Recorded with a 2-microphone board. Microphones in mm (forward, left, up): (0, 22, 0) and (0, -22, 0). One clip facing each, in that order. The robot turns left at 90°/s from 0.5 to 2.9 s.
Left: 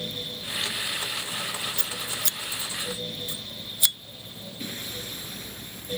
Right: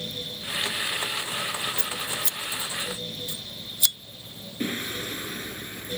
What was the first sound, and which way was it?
Scissors, 60° left (ahead or behind).